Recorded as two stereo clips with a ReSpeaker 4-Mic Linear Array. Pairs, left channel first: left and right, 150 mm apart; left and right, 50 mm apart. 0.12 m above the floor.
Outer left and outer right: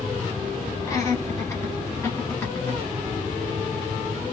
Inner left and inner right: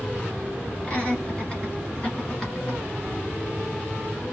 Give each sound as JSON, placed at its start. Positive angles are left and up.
{"t": 0.8, "sound": "laughter", "side_deg": 20, "distance_m": 1.7}